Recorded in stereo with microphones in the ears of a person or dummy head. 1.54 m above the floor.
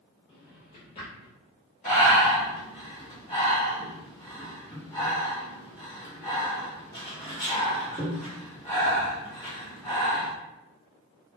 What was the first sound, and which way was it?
A drawer, 25° left (ahead or behind).